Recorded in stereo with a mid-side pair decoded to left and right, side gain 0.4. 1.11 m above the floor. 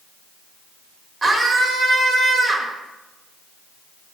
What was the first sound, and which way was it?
A scream, 35° right.